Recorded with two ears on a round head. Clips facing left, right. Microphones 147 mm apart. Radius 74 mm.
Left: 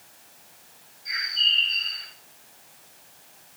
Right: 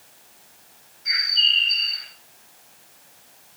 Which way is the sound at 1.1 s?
85° right.